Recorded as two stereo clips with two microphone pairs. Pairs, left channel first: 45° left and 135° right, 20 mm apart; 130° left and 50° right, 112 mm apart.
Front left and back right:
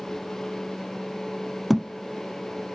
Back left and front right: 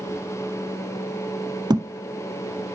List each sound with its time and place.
1.7 s a thud: 60° right, 0.6 m